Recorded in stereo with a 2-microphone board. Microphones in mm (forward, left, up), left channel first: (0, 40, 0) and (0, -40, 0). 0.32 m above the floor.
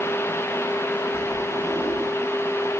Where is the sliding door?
35° right (ahead or behind), 7.5 m.